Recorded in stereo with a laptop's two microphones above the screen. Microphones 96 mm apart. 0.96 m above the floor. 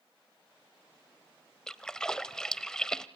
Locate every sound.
1.7 s a splash: 5° left (ahead or behind), 0.7 m